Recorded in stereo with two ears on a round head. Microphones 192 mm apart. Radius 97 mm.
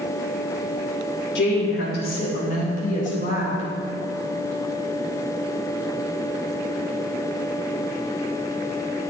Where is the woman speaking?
55° left (ahead or behind), 3 m; by 3.7 s 35° left (ahead or behind), 4.5 m.